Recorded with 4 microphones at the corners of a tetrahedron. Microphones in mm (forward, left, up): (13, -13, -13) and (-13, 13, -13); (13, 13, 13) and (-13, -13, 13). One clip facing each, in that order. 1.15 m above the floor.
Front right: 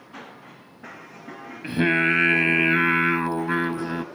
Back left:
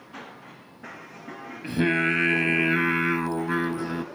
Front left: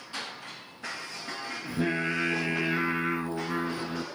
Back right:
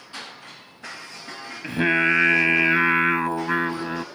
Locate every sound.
1.6 s singing: 115° right, 0.9 m